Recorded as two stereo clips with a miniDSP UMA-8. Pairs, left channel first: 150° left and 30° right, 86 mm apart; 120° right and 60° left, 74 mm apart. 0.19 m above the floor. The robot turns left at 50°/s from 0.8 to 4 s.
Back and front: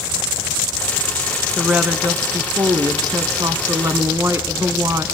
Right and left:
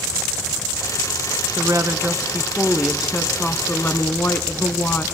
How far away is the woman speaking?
About 1.5 m.